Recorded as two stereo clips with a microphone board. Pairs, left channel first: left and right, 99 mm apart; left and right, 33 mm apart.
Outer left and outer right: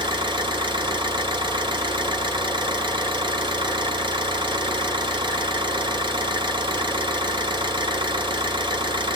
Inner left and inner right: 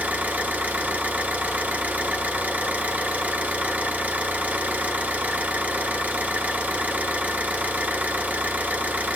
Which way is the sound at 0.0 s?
55° right (ahead or behind).